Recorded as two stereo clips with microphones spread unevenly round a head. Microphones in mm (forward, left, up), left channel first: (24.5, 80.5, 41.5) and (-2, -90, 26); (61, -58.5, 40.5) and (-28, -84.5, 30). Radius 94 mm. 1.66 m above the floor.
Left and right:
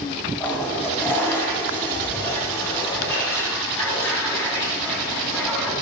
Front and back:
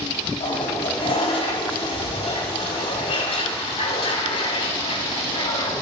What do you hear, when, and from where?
0.4 s a toilet flushing: 5° left, 5.5 m